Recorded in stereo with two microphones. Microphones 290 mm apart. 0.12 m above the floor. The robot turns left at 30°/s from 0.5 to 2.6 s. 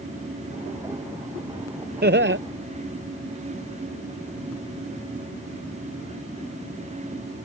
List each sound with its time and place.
2.0 s laughter: 35° right (ahead or behind); by 2.4 s 45° right (ahead or behind)